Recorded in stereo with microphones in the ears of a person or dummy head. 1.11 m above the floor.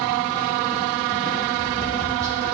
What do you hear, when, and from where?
1.5 s tapping: 15° right (ahead or behind), 1.9 m